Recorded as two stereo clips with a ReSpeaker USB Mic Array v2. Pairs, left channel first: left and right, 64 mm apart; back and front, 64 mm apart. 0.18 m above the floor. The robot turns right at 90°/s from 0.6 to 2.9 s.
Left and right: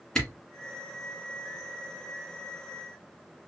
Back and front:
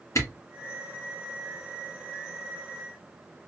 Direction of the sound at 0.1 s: 170° left.